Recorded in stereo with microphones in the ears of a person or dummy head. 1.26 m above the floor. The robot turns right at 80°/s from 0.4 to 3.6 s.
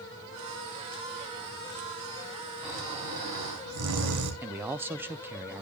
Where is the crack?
I don't hear a crack.